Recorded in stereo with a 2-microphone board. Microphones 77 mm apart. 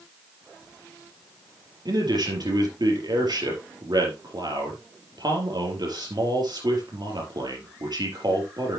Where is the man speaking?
65° right (ahead or behind), 3.5 m.